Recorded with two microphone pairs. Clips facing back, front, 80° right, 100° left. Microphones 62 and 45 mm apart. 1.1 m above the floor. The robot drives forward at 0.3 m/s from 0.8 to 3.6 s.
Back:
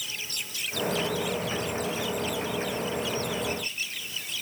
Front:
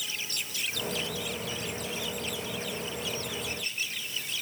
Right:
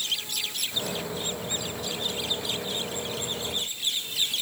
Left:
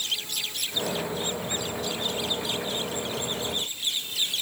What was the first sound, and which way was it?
Only background noise.